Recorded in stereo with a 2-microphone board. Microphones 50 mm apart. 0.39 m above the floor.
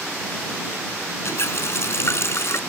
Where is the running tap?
60° left (ahead or behind).